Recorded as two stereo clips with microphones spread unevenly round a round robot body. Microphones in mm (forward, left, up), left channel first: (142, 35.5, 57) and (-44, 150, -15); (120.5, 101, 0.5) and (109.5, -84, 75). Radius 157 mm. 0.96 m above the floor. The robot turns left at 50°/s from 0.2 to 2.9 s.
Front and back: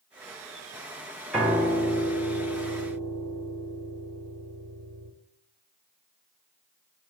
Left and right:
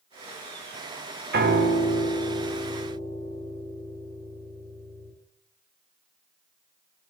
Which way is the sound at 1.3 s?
115° right.